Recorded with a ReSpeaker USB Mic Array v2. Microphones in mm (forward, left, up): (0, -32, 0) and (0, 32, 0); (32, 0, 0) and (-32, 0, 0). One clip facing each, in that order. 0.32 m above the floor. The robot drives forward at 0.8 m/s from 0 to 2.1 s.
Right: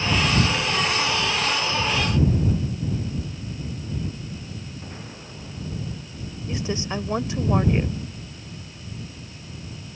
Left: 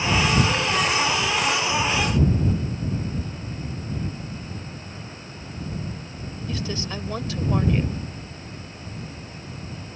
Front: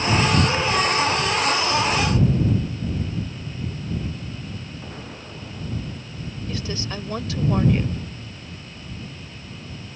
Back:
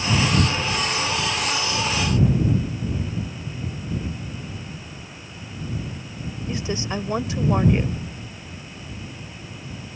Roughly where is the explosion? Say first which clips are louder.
Even, front 3 dB; ahead.